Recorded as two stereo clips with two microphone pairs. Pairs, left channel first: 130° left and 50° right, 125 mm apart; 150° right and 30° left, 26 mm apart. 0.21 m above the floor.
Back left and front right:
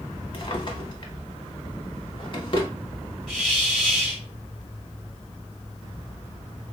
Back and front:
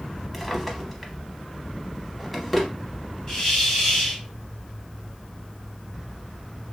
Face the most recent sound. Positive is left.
turn(degrees=-125)